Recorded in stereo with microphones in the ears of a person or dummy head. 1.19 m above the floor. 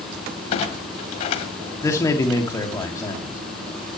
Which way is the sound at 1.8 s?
15° left (ahead or behind).